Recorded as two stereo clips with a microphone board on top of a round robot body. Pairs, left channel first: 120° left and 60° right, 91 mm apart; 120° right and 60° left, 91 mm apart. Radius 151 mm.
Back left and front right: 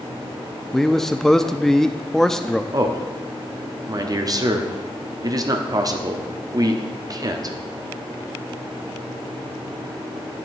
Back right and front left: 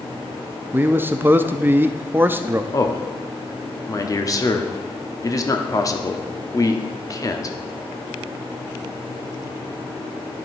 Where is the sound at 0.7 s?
40° left, 0.7 m.